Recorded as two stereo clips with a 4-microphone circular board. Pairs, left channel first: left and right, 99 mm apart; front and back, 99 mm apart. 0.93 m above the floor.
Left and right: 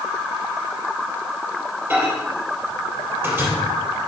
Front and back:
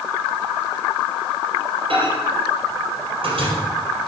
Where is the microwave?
160° right, 3 m.